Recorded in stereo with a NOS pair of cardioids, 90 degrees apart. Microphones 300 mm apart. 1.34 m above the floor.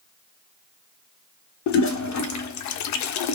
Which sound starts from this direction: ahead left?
A toilet flushing, at 1.7 s.